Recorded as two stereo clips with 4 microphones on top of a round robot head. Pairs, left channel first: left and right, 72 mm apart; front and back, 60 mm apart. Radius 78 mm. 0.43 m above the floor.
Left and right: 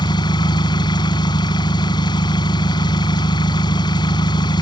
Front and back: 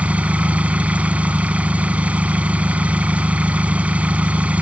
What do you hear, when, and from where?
0.0 s an engine running: 110° left